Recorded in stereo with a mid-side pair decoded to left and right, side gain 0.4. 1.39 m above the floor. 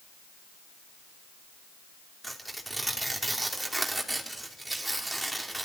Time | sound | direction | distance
2.2 | tearing paper | 10° right | 2.5 m